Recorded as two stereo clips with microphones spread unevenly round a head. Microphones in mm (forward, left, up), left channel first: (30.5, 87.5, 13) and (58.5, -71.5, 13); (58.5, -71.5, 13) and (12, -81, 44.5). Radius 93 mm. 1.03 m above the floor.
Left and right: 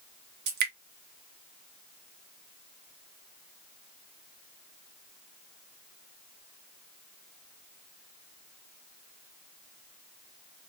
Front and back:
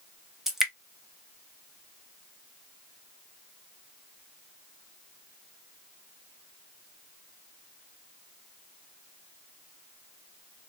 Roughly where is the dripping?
Right.